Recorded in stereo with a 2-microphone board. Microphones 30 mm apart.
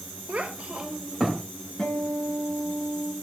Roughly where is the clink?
I don't hear a clink.